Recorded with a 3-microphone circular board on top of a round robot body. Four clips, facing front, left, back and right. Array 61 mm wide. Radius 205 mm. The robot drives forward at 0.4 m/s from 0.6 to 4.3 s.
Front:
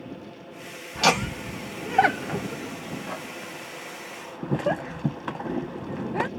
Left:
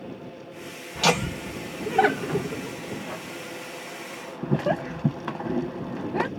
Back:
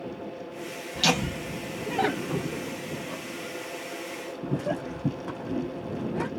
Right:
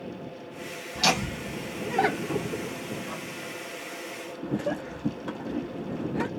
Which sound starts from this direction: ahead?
Laughter, at 0.9 s.